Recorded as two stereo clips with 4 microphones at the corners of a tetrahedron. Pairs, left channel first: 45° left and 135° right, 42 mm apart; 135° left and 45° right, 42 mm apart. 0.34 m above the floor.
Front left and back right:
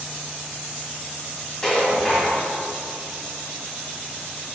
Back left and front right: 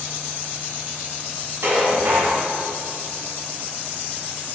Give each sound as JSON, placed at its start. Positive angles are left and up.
{"t": 1.6, "sound": "dishes clattering", "azimuth_deg": -35, "distance_m": 1.9}